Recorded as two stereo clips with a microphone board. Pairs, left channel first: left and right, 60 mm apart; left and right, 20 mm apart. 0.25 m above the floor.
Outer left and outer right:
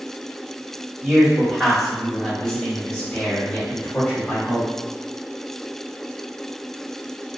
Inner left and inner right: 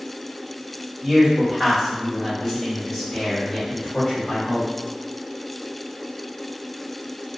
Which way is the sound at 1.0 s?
10° right (ahead or behind).